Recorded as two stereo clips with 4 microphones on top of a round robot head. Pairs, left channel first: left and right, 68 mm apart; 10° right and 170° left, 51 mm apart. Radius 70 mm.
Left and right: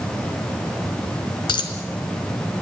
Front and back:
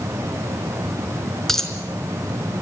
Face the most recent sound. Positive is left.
turn(degrees=75)